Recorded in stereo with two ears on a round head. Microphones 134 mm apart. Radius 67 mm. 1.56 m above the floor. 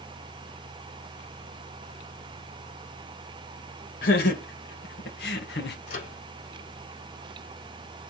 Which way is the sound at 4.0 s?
65° left (ahead or behind).